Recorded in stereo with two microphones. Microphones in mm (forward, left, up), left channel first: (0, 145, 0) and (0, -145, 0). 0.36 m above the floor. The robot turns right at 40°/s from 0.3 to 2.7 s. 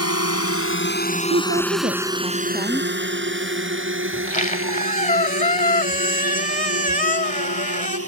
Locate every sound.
0.0 s a drone: 65° left (ahead or behind); by 8.1 s 60° right (ahead or behind)
1.3 s a woman speaking: 50° right; by 2.9 s 5° left
4.1 s a squeak: 30° left (ahead or behind)